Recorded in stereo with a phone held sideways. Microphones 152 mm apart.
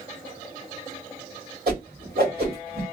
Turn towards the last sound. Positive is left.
turn(degrees=-80)